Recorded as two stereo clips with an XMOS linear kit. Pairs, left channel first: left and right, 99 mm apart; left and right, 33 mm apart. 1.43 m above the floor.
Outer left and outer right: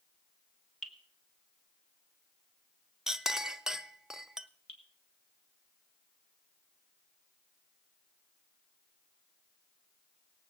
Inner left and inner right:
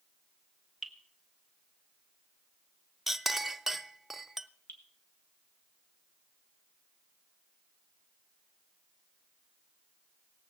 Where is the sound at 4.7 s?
75° left (ahead or behind), 2.5 m.